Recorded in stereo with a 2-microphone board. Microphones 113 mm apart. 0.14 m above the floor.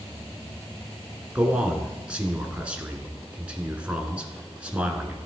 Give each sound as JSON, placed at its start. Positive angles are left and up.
{"t": 1.4, "sound": "a man speaking", "side_deg": -10, "distance_m": 1.3}